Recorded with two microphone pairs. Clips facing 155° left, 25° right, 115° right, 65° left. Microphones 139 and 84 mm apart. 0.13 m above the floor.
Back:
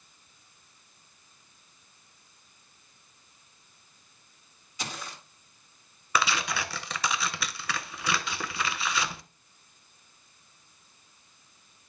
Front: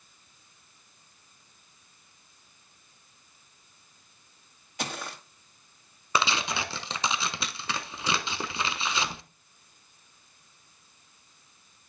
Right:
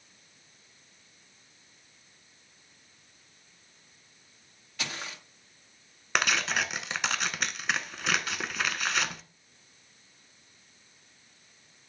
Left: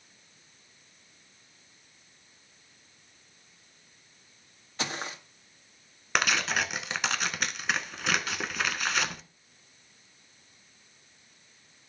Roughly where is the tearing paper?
Ahead right.